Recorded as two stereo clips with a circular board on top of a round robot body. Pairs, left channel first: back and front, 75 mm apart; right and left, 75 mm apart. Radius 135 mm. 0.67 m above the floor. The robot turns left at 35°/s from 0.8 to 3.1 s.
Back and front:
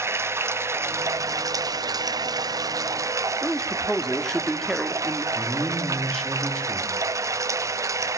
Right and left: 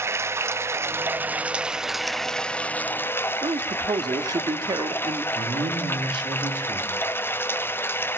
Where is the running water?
45° left, 1.0 m; by 8.2 s 35° right, 1.0 m.